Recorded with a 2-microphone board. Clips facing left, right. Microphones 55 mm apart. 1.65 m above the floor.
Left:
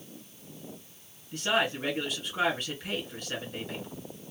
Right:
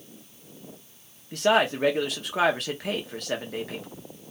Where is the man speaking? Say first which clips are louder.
Right 6 dB; 85° right, 1.5 m.